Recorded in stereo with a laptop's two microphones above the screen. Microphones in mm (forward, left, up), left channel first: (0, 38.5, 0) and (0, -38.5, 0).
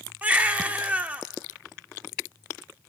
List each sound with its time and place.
0.2 s a baby crying: 20° right (ahead or behind), 0.9 m